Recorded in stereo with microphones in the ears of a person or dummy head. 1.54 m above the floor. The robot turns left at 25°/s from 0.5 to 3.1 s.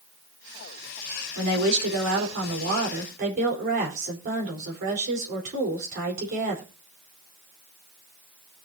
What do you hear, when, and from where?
1.4 s a woman speaking: 85° right, 4.5 m; by 6.6 s 130° right, 4.5 m